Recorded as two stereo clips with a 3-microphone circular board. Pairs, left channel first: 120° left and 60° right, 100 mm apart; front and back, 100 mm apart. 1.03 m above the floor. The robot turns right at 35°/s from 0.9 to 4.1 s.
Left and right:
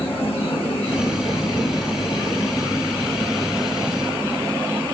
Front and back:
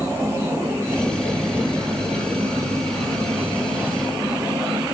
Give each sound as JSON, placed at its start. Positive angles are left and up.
{"t": 0.0, "sound": "an insect", "azimuth_deg": 115, "distance_m": 1.1}